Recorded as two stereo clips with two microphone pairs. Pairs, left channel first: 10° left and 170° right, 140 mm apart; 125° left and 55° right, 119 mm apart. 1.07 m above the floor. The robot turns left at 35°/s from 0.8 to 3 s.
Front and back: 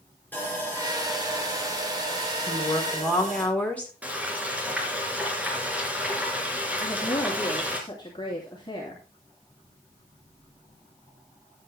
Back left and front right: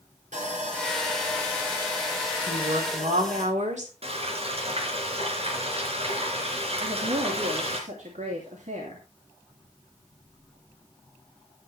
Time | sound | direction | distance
0.3 | sawing | 70° right | 5.5 m
2.5 | a woman speaking | 50° right | 4 m
4.0 | frying | 90° right | 3.5 m
6.8 | a woman speaking | 50° right | 3 m